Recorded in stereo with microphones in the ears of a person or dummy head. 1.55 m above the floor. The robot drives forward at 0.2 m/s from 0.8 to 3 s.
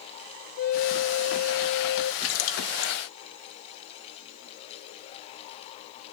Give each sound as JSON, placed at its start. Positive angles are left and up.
{"t": 0.6, "sound": "a flute", "side_deg": 50, "distance_m": 0.6}
{"t": 2.2, "sound": "a splash", "side_deg": 75, "distance_m": 0.9}